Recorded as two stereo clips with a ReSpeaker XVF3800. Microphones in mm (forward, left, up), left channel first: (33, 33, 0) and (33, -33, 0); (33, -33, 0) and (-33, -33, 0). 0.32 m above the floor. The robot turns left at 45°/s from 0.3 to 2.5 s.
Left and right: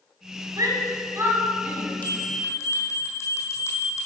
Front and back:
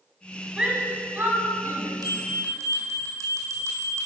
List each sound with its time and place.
0.6 s a shout: 100° right, 2 m; by 1.9 s 160° right, 2 m
2.0 s a bell: 160° left, 2.5 m; by 4.1 s 135° left, 2.5 m